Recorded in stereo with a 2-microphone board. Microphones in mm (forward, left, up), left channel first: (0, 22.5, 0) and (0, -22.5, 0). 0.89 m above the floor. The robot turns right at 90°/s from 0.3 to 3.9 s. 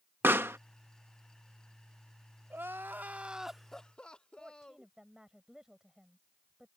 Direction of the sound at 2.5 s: 105° right.